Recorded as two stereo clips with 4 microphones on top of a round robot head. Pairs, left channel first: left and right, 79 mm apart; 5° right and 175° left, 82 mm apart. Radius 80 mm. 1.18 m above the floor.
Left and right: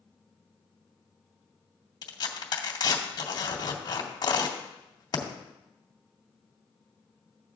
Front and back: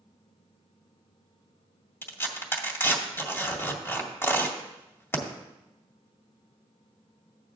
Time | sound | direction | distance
2.0 | tearing paper | 55° left | 1.9 m